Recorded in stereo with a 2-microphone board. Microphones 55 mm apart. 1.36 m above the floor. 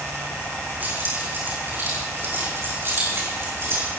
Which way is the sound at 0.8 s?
40° right (ahead or behind).